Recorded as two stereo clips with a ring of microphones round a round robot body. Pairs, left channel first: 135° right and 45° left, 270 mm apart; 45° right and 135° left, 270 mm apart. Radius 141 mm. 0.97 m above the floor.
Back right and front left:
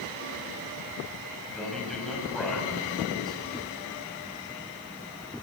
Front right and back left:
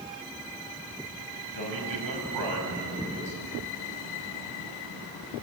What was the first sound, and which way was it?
A man speaking, 135° left.